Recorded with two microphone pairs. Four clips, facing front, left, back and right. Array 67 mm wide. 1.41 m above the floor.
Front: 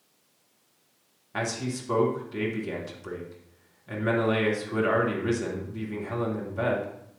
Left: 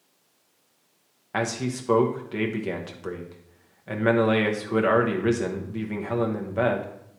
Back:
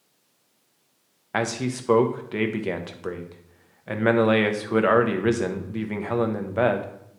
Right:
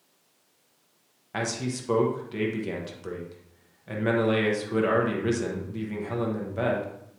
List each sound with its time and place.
1.3 s a man speaking: 160° left, 0.9 m